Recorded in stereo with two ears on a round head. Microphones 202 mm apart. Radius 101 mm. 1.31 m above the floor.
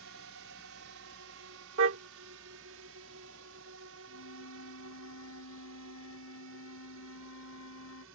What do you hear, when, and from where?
0.0 s a drone: 65° right (ahead or behind)
1.8 s a car horn: 60° right (ahead or behind)
4.1 s a flute: 80° left